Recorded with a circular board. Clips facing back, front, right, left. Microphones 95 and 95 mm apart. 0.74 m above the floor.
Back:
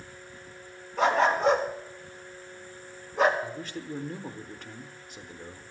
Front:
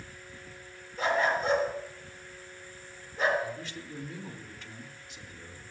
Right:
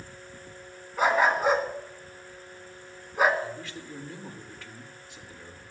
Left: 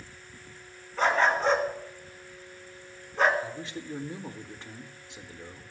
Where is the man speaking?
150° left, 1.5 m.